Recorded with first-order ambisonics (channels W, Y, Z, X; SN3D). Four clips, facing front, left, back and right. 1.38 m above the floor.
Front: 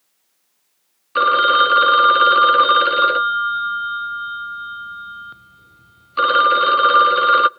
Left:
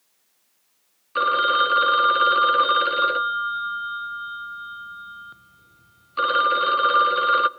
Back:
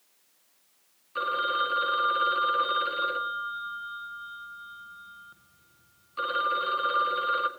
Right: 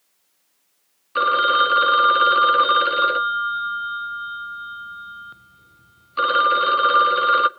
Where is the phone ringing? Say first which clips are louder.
Right 2 dB, front 14 dB; 10° right, 0.5 m.